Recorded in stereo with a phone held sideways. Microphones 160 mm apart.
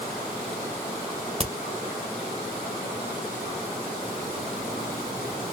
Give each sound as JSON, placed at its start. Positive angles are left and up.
{"t": 1.4, "sound": "a crack", "side_deg": -35, "distance_m": 0.8}